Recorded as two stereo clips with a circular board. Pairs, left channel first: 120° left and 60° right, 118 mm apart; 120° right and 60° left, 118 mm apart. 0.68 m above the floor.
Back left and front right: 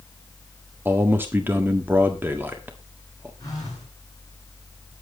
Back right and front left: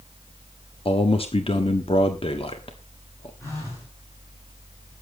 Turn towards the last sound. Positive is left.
turn(degrees=175)